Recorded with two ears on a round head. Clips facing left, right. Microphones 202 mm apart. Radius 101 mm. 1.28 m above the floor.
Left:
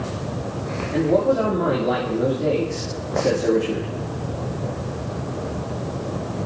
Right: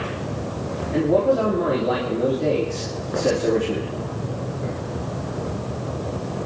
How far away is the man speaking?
About 2.5 m.